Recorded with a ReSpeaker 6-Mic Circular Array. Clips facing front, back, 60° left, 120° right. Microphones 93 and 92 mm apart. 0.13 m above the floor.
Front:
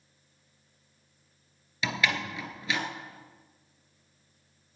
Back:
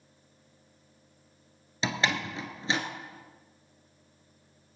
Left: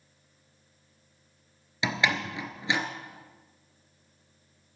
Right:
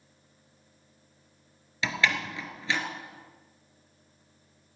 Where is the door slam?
125° left, 1.9 m.